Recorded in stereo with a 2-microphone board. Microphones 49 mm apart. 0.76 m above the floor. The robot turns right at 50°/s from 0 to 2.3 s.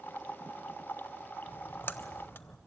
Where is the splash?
40° left (ahead or behind), 0.7 m; by 2.6 s 50° left (ahead or behind), 0.7 m.